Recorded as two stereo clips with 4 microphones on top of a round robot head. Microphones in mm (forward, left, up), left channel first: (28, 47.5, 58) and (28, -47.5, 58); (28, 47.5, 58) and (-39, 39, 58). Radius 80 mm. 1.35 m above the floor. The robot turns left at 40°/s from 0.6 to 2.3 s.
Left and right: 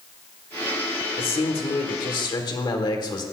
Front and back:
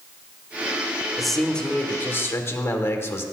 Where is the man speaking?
100° left, 1.4 m; by 3.2 s 55° left, 1.4 m.